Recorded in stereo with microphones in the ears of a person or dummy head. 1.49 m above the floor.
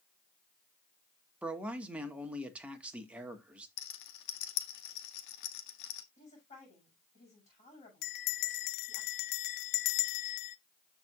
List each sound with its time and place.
1.4 s a man speaking: 5° right (ahead or behind), 1.7 m
3.8 s a rattle: 65° left (ahead or behind), 1.5 m
6.2 s a woman speaking: 35° left (ahead or behind), 7 m
8.0 s a bell: 60° left (ahead or behind), 0.5 m